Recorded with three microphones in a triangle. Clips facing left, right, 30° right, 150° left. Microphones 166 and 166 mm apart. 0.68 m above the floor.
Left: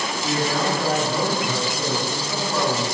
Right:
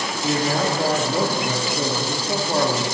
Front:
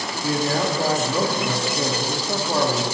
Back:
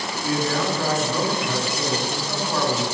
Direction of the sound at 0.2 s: 75° right.